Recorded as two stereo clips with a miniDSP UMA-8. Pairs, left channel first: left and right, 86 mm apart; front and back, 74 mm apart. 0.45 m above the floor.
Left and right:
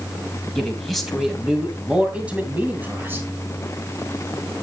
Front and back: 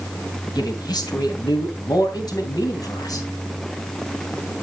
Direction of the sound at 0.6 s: 5° left.